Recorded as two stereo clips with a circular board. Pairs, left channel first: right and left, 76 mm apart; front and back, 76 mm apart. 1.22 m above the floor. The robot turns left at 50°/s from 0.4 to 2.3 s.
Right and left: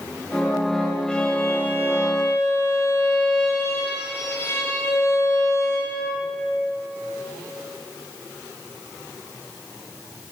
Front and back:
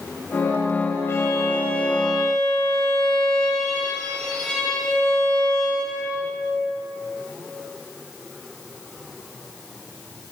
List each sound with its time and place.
1.1 s a violin: 20° right, 1.3 m; by 6.3 s 80° right, 1.3 m